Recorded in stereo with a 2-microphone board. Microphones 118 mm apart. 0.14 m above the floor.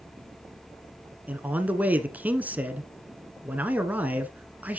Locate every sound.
1.3 s a man speaking: 15° right (ahead or behind), 1.2 m